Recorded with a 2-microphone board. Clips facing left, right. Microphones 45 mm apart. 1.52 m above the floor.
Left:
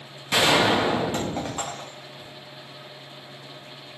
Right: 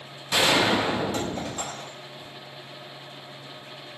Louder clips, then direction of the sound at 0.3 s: Left 2 dB; 40° left (ahead or behind).